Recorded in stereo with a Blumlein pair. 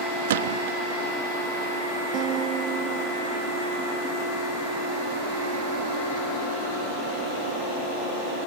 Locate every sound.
0.3 s a gunshot: 60° right
2.1 s a guitar: 30° right